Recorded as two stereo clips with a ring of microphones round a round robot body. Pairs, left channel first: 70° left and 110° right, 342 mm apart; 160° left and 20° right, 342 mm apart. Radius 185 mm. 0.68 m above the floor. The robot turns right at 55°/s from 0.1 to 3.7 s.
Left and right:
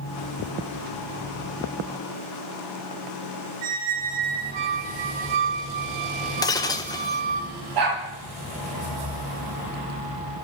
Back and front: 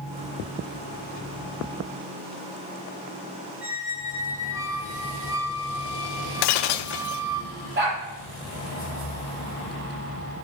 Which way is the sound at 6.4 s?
150° left.